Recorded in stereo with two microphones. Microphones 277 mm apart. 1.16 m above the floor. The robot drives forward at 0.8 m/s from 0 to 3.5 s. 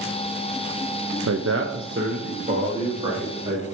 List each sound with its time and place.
1.3 s a man speaking: 70° right (ahead or behind), 0.7 m; by 3.6 s 15° right (ahead or behind), 2 m